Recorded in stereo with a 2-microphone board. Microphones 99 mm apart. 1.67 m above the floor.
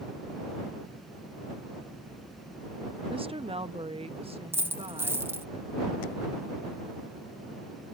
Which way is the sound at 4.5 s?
25° right (ahead or behind).